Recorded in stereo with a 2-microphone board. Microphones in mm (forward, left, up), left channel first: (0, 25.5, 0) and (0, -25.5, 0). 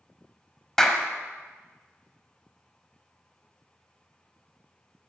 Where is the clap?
10° left (ahead or behind), 0.9 m.